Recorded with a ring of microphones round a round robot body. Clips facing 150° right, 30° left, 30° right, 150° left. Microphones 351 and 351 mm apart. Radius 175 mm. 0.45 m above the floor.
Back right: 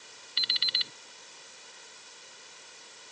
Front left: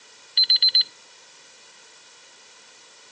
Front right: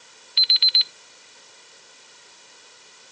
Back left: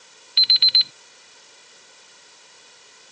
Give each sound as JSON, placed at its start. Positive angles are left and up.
{"t": 0.4, "sound": "an alarm clock", "azimuth_deg": 130}